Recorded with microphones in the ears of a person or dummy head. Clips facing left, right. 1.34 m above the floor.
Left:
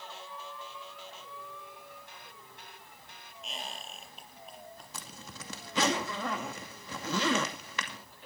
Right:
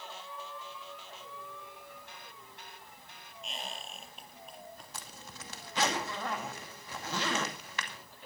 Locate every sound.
3.4 s a squeak: centre (ahead or behind), 5.5 m
4.9 s a zipper: 75° left (ahead or behind), 2.5 m